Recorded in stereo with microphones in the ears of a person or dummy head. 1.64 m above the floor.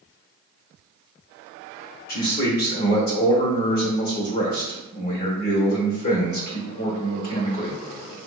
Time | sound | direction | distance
2.1 | a man speaking | 50° left (ahead or behind) | 1.0 m